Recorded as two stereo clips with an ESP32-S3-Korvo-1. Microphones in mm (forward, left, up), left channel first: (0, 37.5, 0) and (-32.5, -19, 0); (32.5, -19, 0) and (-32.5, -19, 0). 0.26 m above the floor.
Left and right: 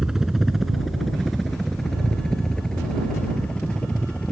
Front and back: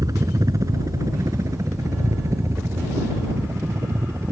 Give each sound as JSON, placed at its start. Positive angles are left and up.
{"t": 0.0, "sound": "a helicopter", "azimuth_deg": 160}